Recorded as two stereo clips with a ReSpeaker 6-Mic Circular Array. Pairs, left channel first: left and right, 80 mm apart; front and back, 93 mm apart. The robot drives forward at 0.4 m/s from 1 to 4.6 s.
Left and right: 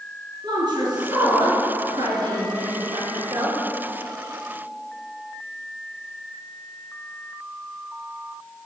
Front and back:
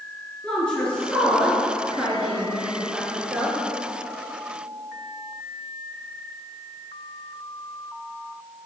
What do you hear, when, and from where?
0.4 s a woman speaking: 80° right, 2 m; by 3.6 s 110° right, 2.5 m